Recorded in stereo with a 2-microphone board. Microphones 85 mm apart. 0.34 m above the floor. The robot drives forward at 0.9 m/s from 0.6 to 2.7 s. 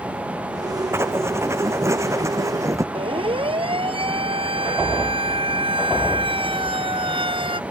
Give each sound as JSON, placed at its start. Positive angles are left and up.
{"t": 0.9, "sound": "writing", "side_deg": -30}
{"t": 3.0, "sound": "a siren", "side_deg": -80}